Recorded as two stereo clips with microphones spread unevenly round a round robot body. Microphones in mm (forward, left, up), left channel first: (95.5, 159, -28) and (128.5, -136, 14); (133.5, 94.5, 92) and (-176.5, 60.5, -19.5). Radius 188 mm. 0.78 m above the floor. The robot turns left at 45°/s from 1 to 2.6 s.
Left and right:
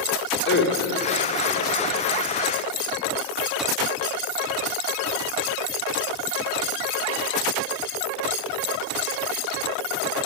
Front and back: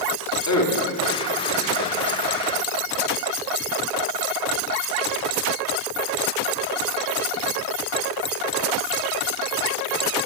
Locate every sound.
0.5 s a man speaking: 50° left, 3 m; by 2.0 s 5° left, 3 m